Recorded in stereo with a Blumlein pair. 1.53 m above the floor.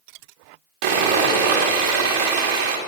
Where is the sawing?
40° right, 2 m.